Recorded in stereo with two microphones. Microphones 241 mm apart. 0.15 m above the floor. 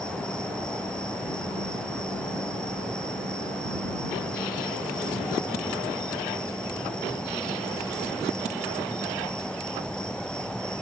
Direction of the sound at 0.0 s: 5° left (ahead or behind).